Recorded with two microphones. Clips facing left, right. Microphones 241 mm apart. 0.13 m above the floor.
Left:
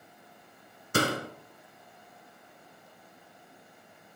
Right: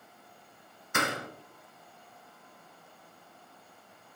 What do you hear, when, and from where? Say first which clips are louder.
0.9 s a door slam: left 5 dB; 35° left (ahead or behind), 0.9 m